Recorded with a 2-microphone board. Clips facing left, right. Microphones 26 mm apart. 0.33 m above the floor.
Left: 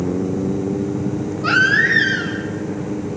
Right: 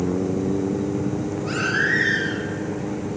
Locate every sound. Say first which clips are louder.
1.4 s a baby crying: left 9 dB; 85° left, 4.5 m